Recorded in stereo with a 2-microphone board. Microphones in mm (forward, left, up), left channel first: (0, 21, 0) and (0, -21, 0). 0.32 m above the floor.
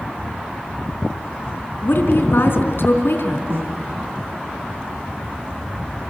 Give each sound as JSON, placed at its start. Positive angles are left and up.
{"t": 1.8, "sound": "a woman speaking", "side_deg": 70, "distance_m": 3.5}
{"t": 3.5, "sound": "a snare drum", "side_deg": -65, "distance_m": 3.0}